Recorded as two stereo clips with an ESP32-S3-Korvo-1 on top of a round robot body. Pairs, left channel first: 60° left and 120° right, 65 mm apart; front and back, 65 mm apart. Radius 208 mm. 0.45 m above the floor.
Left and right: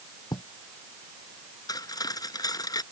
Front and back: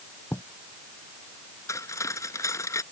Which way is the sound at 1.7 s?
40° left.